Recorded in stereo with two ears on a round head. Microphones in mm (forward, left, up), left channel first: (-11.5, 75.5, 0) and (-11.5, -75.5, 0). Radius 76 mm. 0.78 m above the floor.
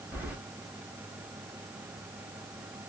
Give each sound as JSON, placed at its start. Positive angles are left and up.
{"t": 0.1, "sound": "keys jangling", "side_deg": -10, "distance_m": 1.7}